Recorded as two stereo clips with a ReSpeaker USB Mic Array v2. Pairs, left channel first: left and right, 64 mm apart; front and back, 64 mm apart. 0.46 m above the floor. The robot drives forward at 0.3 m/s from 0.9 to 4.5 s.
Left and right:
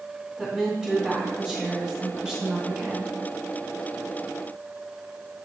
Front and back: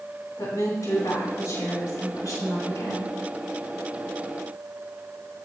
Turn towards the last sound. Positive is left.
turn(degrees=-20)